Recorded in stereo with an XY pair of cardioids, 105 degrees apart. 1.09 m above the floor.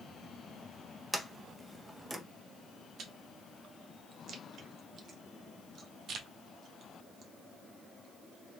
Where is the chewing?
65° right, 0.8 m.